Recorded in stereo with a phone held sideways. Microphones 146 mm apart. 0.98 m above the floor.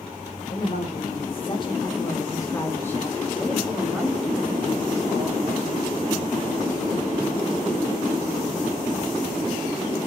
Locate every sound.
0.5 s a woman speaking: 45° left (ahead or behind), 2.5 m; by 5.8 s 25° right (ahead or behind), 2.5 m